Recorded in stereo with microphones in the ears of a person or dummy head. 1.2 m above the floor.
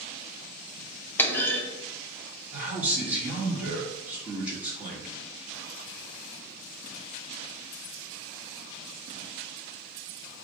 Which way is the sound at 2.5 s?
10° right (ahead or behind).